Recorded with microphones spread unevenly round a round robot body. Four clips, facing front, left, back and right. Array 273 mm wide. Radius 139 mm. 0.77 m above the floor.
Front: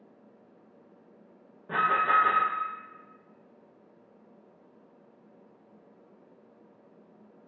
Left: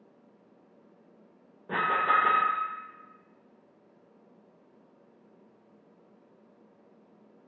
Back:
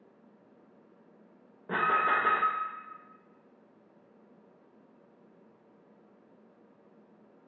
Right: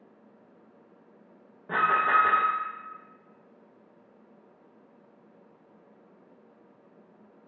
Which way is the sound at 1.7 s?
170° right.